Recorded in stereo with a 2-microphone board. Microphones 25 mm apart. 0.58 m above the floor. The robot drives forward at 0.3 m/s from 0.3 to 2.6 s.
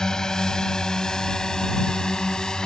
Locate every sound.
0.0 s a drone: 25° left (ahead or behind)